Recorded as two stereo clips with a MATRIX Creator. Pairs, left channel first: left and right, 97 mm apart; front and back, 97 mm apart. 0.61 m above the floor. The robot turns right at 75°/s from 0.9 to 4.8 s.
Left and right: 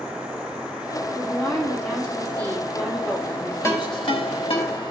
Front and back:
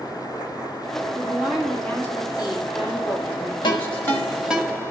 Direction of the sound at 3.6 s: 30° left.